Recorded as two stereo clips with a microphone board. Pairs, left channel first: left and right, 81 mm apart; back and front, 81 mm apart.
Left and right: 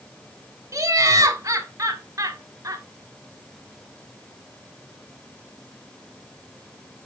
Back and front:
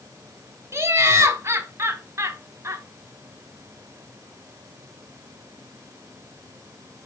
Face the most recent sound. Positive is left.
turn(degrees=-45)